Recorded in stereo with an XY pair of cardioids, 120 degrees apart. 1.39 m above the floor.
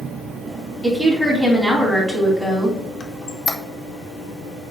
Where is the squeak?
30° left, 1.0 m.